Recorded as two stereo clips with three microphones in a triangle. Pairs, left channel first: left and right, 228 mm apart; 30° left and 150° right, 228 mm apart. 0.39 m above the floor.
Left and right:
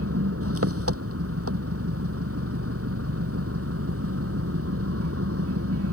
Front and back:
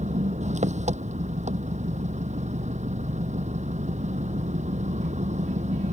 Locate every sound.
0.0 s an engine running: 90° right